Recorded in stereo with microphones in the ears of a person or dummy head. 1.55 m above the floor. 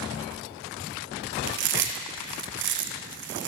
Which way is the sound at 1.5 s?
55° right (ahead or behind).